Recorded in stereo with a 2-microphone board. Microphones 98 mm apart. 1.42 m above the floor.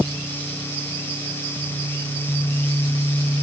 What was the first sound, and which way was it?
Only background noise.